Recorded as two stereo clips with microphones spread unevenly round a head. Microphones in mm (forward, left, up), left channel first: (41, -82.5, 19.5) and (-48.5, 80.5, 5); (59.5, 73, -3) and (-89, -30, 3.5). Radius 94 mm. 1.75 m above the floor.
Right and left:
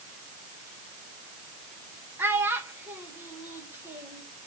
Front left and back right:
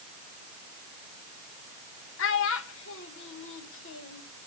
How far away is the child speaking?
About 1.7 m.